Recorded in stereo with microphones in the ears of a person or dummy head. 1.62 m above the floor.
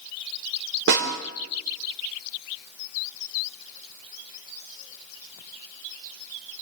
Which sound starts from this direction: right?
A snare drum, at 0.9 s.